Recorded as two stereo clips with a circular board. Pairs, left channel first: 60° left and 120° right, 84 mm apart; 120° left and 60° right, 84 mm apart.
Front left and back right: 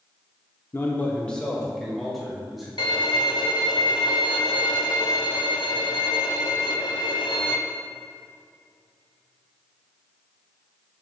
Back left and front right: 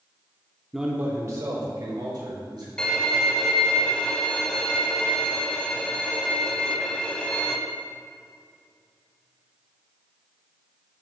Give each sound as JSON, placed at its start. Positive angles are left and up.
{"t": 0.7, "sound": "a man speaking", "azimuth_deg": 30, "distance_m": 0.7}
{"t": 2.8, "sound": "a violin", "azimuth_deg": 40, "distance_m": 0.7}